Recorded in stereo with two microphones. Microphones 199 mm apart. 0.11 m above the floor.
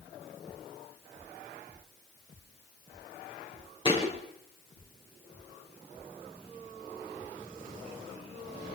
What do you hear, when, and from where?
3.9 s a thud: 25° left (ahead or behind), 5.5 m